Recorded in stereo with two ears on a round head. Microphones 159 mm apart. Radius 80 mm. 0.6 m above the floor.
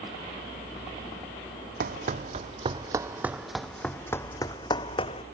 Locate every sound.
1.8 s running footsteps: 50° right (ahead or behind); by 5.2 s 35° left (ahead or behind)